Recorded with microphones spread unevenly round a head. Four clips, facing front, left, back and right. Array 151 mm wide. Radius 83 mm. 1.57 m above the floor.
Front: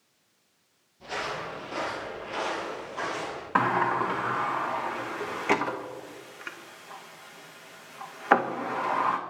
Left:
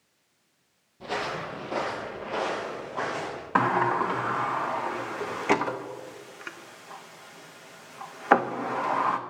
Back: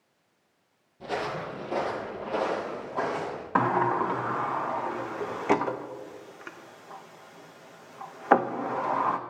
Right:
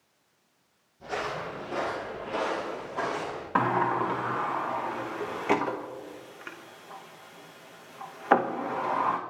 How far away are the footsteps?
About 3 m.